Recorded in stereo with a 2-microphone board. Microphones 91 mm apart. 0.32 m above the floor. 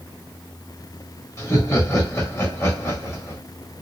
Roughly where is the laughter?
Left.